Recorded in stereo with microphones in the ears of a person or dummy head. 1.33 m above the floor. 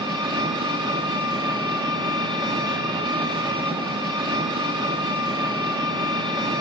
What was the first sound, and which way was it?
An engine running, 25° right (ahead or behind).